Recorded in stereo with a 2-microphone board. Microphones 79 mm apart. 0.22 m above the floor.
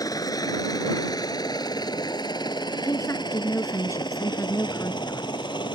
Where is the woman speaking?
40° left (ahead or behind).